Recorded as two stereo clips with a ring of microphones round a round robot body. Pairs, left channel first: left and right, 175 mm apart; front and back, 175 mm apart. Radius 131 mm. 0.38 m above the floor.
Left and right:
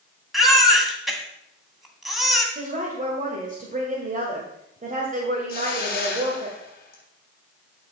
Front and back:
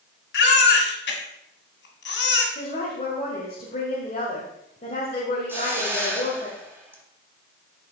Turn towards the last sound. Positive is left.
turn(degrees=105)